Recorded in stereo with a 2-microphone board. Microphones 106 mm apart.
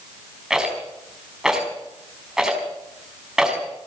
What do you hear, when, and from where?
0.5 s a rattle: 5° right (ahead or behind), 4.5 m